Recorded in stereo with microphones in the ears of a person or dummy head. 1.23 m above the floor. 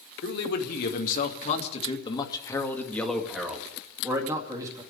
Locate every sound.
0.2 s a man speaking: 70° left (ahead or behind), 2.5 m; by 4.8 s 20° right (ahead or behind), 3 m